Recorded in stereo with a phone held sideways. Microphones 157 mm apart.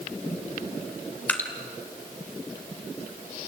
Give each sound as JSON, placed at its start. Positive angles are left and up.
{"t": 1.3, "sound": "dripping", "side_deg": 10, "distance_m": 2.5}